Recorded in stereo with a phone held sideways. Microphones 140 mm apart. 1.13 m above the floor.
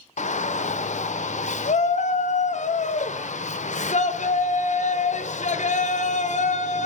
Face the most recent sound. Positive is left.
turn(degrees=60)  # may be behind; listen again after turning